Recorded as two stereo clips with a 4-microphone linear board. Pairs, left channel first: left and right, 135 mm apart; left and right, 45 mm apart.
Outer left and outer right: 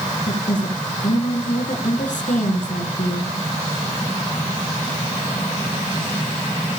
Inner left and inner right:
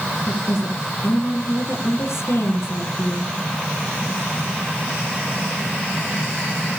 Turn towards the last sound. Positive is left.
turn(degrees=65)  # may be behind; listen again after turning